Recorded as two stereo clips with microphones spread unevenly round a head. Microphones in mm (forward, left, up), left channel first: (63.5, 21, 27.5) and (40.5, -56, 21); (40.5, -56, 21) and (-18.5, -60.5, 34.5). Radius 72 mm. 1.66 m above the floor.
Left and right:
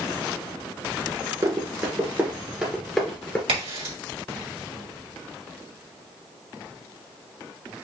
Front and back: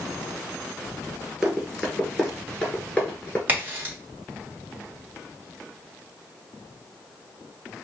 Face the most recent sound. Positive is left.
turn(degrees=-120)